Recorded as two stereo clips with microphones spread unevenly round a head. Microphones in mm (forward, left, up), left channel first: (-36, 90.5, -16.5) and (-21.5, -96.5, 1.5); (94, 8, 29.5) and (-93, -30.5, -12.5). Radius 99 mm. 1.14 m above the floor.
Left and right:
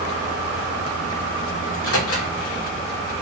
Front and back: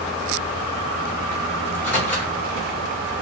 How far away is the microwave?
About 1.4 m.